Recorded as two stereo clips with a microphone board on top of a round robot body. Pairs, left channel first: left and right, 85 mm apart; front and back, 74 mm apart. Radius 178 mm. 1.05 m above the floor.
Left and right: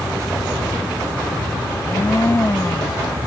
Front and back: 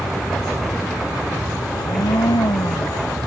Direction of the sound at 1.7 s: 25° left.